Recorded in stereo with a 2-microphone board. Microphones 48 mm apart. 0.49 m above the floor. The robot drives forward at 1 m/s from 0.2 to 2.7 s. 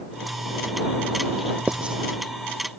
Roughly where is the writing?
Right.